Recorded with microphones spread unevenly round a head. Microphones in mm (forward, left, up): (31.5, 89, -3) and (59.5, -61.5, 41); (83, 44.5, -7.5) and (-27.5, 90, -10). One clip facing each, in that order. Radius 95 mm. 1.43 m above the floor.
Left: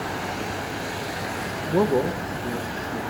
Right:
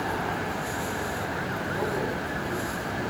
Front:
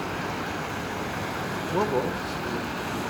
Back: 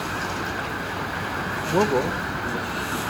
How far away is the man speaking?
About 0.8 m.